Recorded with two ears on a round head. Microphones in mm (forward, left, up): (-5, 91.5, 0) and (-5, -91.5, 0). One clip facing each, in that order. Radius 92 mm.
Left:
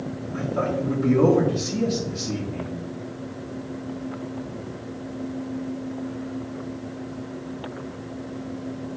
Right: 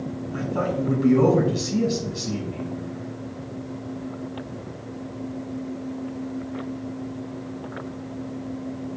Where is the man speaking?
70° right (ahead or behind), 3.5 m.